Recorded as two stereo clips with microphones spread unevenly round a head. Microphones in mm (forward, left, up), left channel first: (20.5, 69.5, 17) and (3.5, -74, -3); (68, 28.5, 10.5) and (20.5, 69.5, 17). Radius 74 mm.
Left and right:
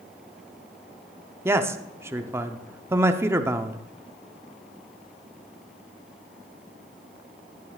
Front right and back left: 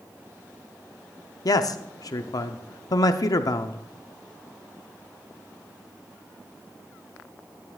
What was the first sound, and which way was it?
A man speaking, 25° right.